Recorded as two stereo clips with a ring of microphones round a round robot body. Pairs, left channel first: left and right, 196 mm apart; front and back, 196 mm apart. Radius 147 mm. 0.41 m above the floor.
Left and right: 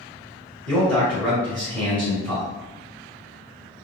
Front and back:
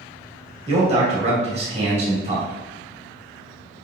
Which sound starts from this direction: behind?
A man speaking, at 0.7 s.